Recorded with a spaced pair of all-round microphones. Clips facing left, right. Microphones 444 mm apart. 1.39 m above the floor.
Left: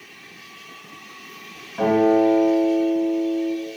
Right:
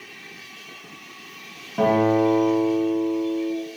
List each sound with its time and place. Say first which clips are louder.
1.8 s a guitar: left 2 dB; 55° right (ahead or behind), 1.1 m